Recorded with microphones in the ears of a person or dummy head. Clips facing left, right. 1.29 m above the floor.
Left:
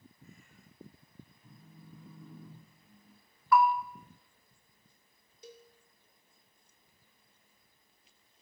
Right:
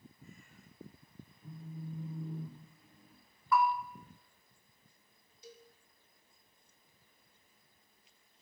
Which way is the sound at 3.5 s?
50° left (ahead or behind).